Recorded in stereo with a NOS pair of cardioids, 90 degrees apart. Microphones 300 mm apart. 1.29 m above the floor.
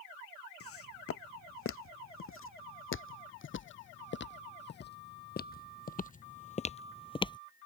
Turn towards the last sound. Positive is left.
turn(degrees=20)